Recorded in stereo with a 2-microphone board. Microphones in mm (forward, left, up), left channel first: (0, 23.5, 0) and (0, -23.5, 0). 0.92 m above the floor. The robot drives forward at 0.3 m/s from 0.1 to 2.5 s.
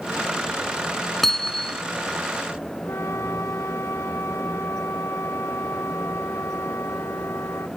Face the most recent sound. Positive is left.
turn(degrees=85)